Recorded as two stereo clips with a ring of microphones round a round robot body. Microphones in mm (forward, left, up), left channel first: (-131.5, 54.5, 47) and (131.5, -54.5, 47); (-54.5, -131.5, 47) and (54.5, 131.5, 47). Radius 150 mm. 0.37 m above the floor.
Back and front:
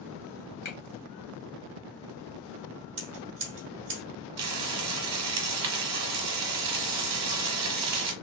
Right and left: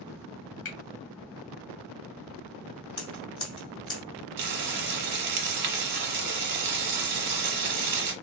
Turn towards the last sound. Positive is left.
turn(degrees=15)